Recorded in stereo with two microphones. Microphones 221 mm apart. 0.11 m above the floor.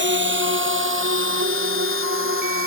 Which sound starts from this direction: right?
A drone, at 0.0 s.